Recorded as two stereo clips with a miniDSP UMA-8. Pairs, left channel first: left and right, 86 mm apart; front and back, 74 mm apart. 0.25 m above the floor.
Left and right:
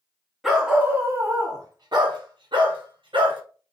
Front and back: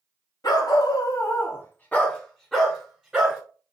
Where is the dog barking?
5° right, 0.9 m; by 3.4 s 100° right, 1.5 m.